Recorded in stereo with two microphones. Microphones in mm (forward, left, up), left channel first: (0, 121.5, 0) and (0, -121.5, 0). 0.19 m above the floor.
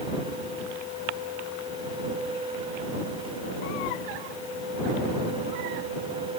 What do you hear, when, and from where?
Only background noise.